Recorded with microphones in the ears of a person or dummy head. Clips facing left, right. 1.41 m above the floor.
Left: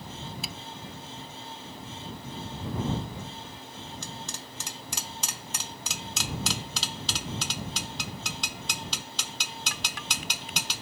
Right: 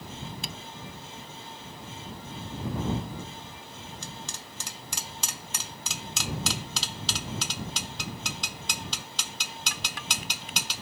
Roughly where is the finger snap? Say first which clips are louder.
Even; centre.